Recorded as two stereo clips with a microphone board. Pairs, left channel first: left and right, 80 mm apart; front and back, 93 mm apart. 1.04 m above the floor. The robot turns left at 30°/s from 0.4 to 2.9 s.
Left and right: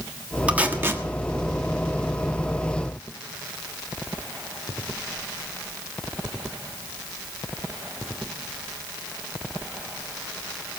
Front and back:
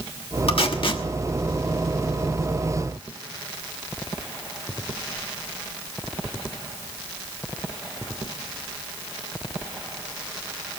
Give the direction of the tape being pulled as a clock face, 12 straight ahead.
1 o'clock.